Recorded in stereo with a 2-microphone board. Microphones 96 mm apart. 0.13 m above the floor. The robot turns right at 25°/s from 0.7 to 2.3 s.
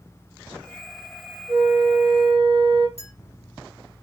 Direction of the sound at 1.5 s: 70° right (ahead or behind).